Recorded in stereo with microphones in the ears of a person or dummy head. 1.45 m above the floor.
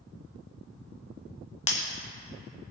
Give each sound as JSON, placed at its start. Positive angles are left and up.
{"t": 1.7, "sound": "breaking glass", "side_deg": 35, "distance_m": 1.2}